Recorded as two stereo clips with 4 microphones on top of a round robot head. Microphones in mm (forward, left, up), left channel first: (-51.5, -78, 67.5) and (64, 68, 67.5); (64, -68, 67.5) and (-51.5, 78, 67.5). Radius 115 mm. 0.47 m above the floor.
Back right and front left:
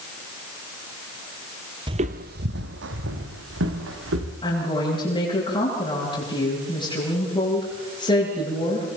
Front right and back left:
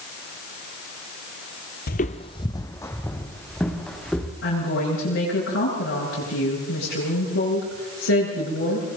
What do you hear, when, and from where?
1.9 s footsteps: 15° right, 0.8 m; by 4.3 s 35° left, 4 m
4.4 s a woman speaking: 65° right, 9.5 m